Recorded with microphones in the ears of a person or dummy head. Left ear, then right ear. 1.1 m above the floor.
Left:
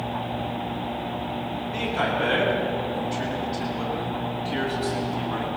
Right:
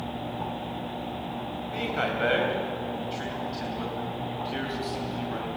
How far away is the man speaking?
About 5 m.